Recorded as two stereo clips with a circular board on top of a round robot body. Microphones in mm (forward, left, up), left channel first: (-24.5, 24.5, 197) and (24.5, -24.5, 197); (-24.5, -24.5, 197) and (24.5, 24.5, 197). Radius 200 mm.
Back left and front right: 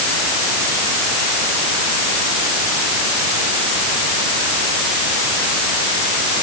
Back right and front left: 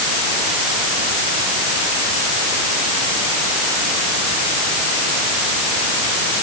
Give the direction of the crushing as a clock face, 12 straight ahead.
I don't hear crushing.